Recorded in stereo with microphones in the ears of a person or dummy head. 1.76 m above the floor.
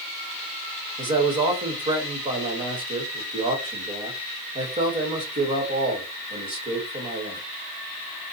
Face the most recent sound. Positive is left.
turn(degrees=-20)  # may be behind; listen again after turning